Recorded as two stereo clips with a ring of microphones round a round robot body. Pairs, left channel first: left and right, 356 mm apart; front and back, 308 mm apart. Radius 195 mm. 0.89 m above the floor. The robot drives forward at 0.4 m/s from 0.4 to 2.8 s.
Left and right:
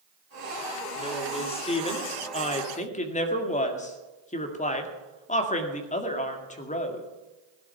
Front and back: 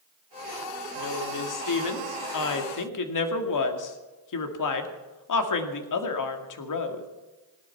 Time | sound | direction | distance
0.9 | a woman speaking | 15° left | 3 m